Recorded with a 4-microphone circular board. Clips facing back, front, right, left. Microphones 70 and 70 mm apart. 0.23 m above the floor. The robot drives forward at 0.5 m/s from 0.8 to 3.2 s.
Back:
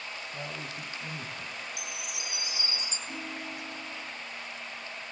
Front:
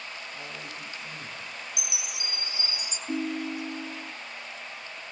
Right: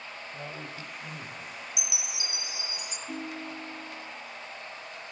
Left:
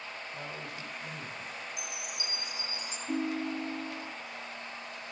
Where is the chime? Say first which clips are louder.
Even, even; 75° right, 0.7 m; by 3.0 s 120° right, 0.8 m.